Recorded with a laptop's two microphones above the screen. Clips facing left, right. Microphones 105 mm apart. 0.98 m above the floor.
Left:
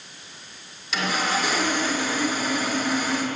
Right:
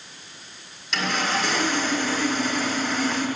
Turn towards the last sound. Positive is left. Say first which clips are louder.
# even
turn(degrees=0)  # may be behind; listen again after turning